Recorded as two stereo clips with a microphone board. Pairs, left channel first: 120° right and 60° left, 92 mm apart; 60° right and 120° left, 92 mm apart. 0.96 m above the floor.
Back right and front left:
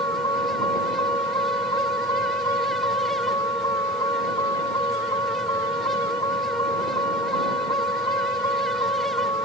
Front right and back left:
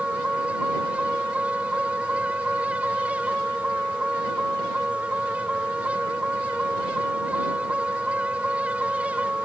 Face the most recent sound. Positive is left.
turn(degrees=-160)